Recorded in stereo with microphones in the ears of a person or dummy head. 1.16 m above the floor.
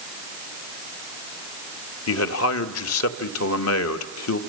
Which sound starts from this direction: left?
A man speaking, at 2.1 s.